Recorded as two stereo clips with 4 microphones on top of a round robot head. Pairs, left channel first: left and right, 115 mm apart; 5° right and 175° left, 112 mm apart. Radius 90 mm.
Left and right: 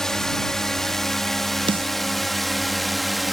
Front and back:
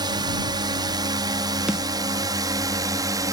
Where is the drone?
175° left; by 3.3 s straight behind.